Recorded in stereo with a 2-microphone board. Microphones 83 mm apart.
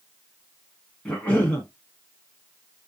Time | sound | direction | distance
1.1 | a cough | 15° left (ahead or behind) | 1.1 m